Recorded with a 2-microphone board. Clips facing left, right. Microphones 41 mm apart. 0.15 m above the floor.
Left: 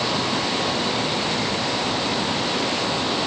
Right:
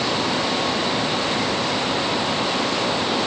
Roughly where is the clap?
No clap in this recording.